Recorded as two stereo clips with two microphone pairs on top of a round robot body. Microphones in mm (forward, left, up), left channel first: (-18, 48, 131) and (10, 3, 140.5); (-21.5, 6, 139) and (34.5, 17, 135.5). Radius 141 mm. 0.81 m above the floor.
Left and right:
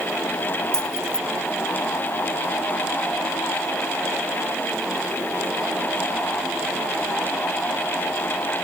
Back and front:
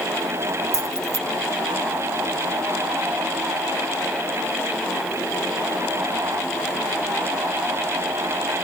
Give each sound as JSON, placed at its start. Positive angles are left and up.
{"t": 0.7, "sound": "keys jangling", "azimuth_deg": 45}